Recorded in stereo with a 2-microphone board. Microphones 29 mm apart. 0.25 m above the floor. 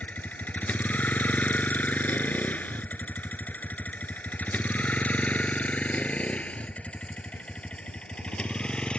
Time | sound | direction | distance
0.0 | a vehicle | 60° left (ahead or behind) | ?